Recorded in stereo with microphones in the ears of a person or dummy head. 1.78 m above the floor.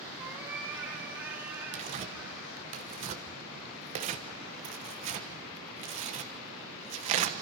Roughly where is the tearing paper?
Right.